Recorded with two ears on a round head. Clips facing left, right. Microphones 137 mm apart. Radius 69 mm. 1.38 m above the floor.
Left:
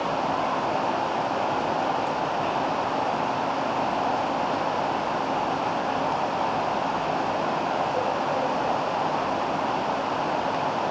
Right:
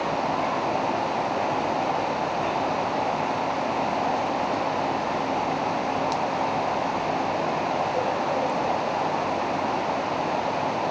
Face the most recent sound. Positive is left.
No sound to turn to.